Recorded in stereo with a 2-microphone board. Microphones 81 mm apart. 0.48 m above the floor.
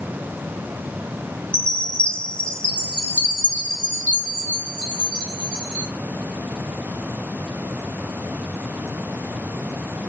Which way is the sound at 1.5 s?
15° left (ahead or behind).